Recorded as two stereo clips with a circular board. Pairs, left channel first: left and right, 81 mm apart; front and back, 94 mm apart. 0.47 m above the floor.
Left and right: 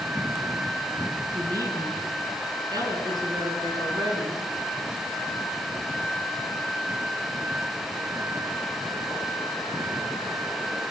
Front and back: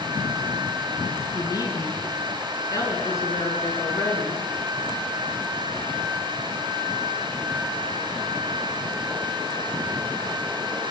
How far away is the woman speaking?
About 4.5 m.